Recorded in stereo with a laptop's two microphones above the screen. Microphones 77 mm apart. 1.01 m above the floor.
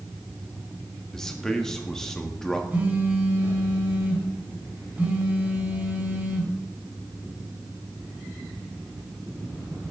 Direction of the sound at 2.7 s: 25° right (ahead or behind).